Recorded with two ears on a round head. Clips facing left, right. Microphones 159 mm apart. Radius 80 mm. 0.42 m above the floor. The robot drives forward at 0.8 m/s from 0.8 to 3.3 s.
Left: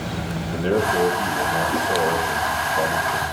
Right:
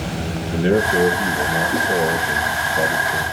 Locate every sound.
0.5 s a man speaking: 20° right (ahead or behind), 4.5 m; by 3.2 s 15° right (ahead or behind), 6.5 m